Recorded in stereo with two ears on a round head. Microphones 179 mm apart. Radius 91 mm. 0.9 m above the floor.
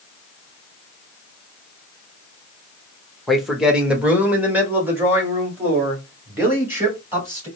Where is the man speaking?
Centre (ahead or behind), 0.9 m; by 7.5 s 10° right (ahead or behind), 3.5 m.